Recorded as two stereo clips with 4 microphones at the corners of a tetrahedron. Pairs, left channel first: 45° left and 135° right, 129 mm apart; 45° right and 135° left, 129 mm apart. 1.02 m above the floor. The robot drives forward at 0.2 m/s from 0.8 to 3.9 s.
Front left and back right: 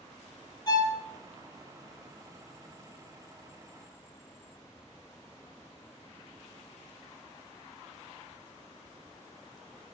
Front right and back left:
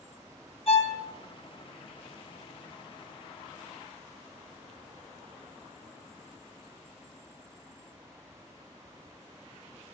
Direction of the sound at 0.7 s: 10° right.